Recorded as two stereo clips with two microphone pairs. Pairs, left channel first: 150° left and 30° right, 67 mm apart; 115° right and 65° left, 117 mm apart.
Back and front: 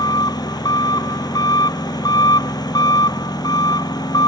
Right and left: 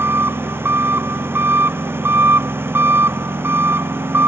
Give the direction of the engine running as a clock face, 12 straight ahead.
7 o'clock.